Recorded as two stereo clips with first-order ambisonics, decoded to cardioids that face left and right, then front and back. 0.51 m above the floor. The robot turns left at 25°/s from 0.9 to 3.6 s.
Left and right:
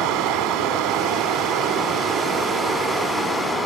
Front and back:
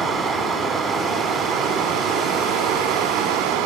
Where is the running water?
125° right, 1.1 m; by 3.7 s 170° left, 1.1 m.